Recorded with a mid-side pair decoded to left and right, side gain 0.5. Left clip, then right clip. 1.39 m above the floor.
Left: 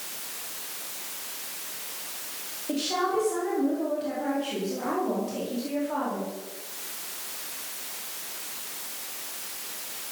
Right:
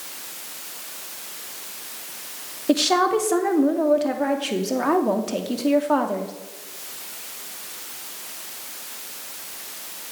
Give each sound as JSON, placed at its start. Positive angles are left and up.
{"t": 2.7, "sound": "a woman speaking", "azimuth_deg": -65, "distance_m": 2.5}